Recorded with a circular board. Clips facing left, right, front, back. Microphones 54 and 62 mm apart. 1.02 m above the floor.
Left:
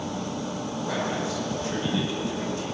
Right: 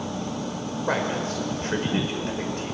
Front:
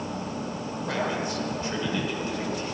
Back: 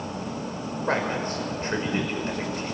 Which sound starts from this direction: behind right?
A man speaking, at 0.9 s.